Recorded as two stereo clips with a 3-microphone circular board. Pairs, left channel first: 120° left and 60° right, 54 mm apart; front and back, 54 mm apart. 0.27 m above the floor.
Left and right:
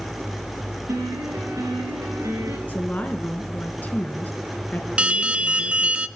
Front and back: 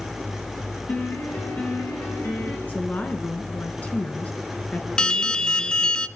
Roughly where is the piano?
Ahead right.